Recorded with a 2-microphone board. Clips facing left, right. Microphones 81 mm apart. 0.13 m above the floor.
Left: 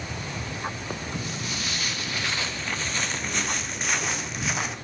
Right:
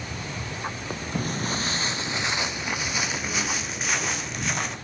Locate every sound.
1.1 s footsteps: 45° right (ahead or behind), 0.9 m; by 4.8 s 5° left (ahead or behind), 2.5 m